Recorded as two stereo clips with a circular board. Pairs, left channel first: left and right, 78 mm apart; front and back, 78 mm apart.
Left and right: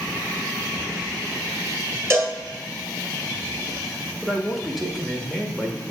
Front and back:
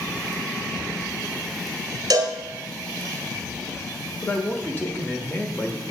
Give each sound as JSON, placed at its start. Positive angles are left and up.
{"t": 2.1, "sound": "a cowbell", "azimuth_deg": -145, "distance_m": 1.3}
{"t": 4.2, "sound": "a man speaking", "azimuth_deg": 5, "distance_m": 0.9}